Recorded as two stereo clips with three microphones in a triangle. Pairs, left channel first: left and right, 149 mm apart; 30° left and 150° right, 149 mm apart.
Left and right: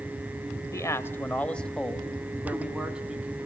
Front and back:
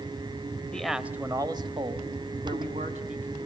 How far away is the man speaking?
About 0.9 m.